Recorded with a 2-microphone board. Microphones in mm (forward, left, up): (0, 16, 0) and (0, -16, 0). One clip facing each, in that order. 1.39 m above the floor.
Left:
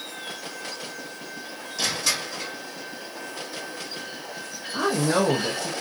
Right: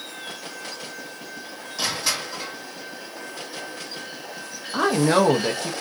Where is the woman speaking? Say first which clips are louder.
Right 4 dB; 55° right (ahead or behind), 0.5 m.